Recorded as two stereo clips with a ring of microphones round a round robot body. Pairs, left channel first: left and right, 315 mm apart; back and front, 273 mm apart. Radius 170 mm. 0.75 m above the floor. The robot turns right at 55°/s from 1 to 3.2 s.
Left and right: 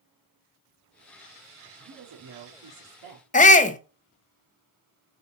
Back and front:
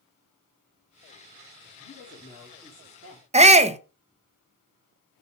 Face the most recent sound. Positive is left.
turn(degrees=45)